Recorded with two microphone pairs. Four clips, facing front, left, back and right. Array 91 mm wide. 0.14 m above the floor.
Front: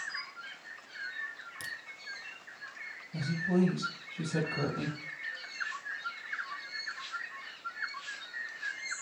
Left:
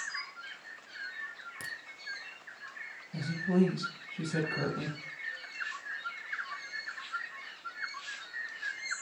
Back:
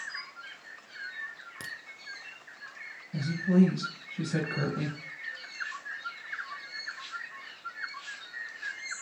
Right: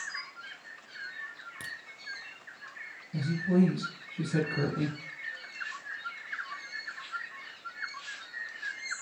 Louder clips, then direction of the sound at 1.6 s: Even, back 1 dB; 175° right.